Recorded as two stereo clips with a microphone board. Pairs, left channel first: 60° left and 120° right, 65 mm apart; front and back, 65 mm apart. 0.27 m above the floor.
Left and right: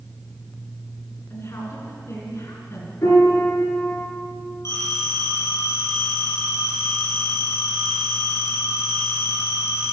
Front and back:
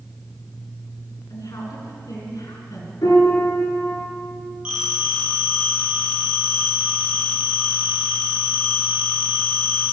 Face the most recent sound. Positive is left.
turn(degrees=105)